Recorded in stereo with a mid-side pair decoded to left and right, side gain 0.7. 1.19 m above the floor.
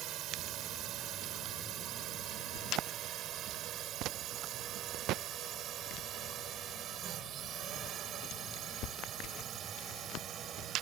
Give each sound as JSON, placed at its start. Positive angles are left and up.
{"t": 0.0, "sound": "a drone", "azimuth_deg": -50}